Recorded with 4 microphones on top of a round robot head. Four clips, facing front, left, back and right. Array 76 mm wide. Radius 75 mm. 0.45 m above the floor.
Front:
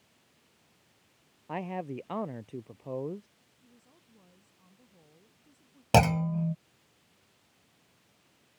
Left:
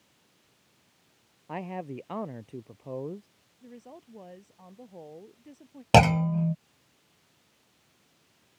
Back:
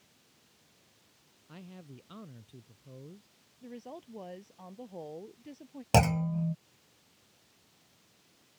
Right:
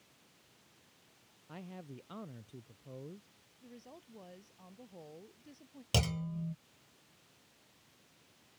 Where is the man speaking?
40° left.